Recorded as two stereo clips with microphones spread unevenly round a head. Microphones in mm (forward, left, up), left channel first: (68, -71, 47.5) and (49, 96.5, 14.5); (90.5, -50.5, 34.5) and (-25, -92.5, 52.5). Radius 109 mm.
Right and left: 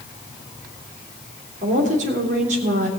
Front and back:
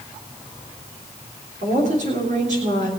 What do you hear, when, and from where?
1.6 s a woman speaking: 150° left, 3.5 m